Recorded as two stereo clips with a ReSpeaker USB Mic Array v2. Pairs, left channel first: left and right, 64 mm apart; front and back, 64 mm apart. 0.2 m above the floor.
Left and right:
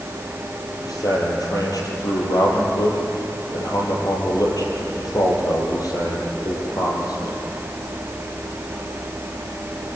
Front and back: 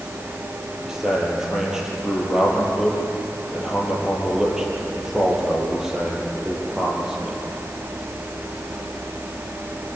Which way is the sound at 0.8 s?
100° left.